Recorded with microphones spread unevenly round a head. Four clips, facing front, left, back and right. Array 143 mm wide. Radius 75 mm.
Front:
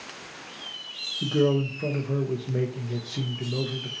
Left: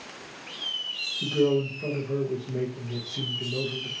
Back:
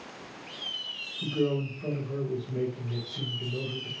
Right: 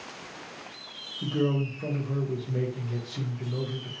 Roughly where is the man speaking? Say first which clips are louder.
Left 4 dB, front 5 dB; ahead.